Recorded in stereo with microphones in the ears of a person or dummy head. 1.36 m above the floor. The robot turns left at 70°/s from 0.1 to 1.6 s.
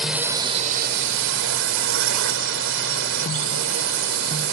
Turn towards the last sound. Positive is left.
turn(degrees=-110)